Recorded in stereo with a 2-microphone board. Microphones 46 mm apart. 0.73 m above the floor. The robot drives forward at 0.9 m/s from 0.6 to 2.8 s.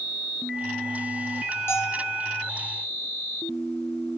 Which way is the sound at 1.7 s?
70° left (ahead or behind).